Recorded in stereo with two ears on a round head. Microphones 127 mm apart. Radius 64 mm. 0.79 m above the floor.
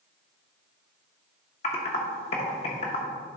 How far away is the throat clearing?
No throat clearing in this recording.